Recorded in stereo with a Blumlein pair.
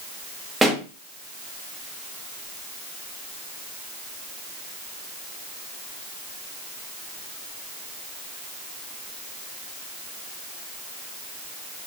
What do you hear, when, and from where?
0.6 s a pop: 10° right, 1.3 m